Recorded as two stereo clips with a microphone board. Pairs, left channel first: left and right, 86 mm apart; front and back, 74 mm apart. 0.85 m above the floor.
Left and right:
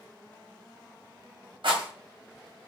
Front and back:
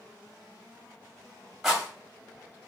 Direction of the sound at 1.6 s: 95° right.